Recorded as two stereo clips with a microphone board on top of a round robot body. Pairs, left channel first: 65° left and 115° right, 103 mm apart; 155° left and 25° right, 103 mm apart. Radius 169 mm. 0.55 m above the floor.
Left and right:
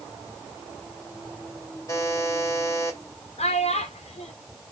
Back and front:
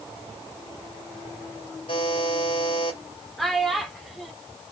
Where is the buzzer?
130° left, 2.5 m.